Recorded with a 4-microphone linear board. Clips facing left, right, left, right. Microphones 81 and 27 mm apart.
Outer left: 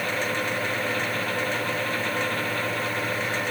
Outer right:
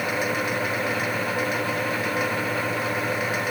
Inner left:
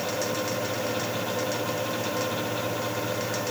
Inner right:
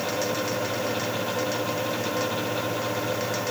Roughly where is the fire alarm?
No fire alarm in this recording.